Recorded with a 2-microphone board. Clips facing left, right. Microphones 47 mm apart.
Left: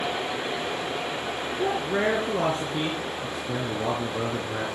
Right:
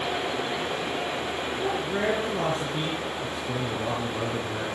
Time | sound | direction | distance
1.6 | a man speaking | 20° left (ahead or behind) | 3 m